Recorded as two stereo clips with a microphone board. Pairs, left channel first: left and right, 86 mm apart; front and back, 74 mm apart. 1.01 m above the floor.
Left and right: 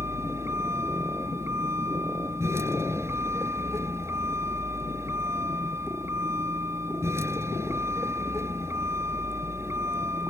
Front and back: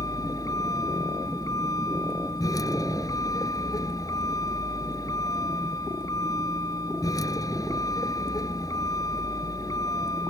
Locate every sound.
0.0 s a vehicle: 35° right